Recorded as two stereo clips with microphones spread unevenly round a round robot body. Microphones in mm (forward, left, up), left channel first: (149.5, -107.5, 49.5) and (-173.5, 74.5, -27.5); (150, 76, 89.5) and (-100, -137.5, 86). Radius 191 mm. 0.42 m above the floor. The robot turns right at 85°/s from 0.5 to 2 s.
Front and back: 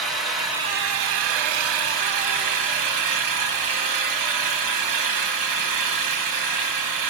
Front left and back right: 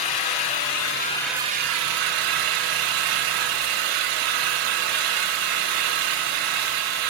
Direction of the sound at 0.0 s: 65° left.